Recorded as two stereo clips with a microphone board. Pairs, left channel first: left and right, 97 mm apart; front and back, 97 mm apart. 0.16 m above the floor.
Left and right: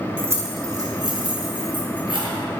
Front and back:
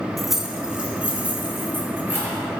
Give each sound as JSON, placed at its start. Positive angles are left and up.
{"t": 0.2, "sound": "keys jangling", "azimuth_deg": -85, "distance_m": 0.7}